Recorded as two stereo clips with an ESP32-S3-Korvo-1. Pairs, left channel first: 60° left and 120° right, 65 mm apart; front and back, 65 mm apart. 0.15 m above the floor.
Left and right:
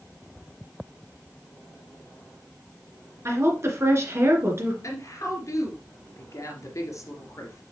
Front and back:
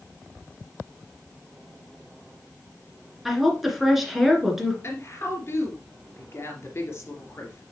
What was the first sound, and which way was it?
A woman speaking, 95° right.